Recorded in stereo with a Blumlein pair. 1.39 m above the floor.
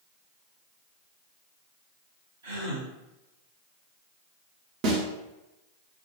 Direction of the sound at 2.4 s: 65° right.